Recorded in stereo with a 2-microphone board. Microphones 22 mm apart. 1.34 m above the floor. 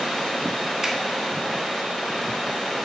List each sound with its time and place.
0.8 s a finger snap: 20° right (ahead or behind), 1.4 m